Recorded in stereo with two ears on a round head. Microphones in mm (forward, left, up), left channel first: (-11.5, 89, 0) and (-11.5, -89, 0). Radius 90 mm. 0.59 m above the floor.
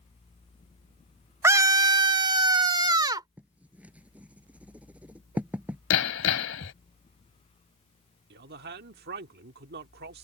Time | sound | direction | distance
1.4 | a scream | 15° right (ahead or behind) | ?
3.4 | writing | 5° right (ahead or behind) | ?
5.9 | hammering | 80° left | ?
8.3 | a man speaking | 55° right (ahead or behind) | ?